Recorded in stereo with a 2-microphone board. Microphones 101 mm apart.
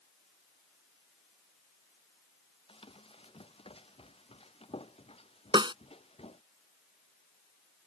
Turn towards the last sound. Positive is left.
turn(degrees=-55)  # may be behind; listen again after turning